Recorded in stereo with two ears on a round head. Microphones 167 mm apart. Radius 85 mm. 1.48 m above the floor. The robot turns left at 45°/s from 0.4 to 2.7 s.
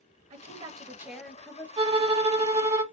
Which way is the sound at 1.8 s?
25° right (ahead or behind).